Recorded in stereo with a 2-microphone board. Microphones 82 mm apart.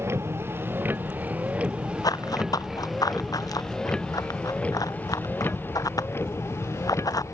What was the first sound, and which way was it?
A vehicle, 30° right (ahead or behind).